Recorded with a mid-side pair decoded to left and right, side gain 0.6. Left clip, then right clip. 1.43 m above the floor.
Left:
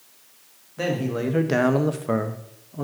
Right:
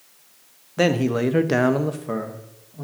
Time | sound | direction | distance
0.8 | a man speaking | 50° right | 0.9 m